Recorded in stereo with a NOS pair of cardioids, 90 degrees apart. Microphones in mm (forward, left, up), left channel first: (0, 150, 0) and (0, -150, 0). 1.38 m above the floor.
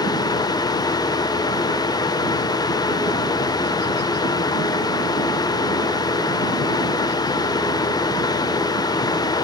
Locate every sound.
0.0 s a fan: 15° left, 0.8 m